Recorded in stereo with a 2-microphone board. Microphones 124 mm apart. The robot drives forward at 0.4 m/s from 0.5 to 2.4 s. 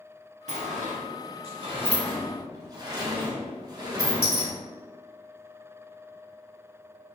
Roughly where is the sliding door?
Right.